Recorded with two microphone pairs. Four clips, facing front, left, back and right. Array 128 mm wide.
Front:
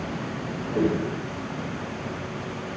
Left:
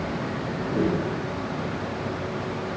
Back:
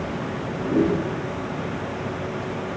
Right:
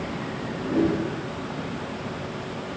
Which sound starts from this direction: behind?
A whoosh, at 0.6 s.